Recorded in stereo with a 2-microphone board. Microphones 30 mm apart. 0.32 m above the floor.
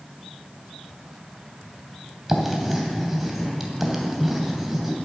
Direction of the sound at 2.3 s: 10° right (ahead or behind).